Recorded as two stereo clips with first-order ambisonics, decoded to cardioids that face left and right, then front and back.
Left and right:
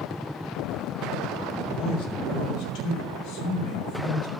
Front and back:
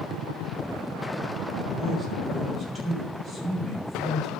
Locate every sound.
1.6 s a man speaking: 100° left, 3.5 m; by 4.3 s 120° left, 5 m